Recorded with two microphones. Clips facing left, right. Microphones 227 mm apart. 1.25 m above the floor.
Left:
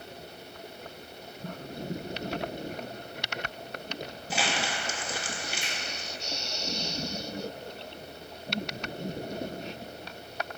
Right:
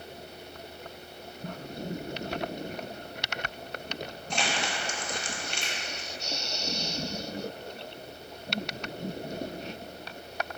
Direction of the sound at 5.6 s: 15° left (ahead or behind).